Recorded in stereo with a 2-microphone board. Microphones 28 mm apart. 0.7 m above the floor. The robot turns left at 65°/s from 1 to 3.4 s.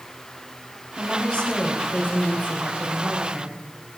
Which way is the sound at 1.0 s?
155° left.